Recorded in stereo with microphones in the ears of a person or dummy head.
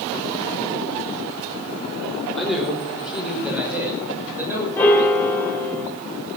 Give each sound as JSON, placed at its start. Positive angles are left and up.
{"t": 2.4, "sound": "a man speaking", "side_deg": 0, "distance_m": 4.5}
{"t": 4.8, "sound": "a piano", "side_deg": 10, "distance_m": 2.0}